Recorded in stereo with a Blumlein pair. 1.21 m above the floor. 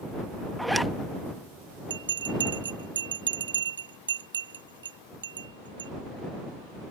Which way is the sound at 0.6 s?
Straight ahead.